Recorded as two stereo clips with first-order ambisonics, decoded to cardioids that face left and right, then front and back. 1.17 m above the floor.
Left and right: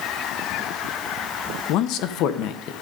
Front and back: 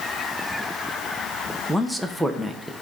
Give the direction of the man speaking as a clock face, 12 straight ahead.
9 o'clock.